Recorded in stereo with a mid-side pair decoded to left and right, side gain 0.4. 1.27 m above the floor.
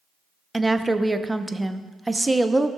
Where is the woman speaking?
15° right, 0.7 m.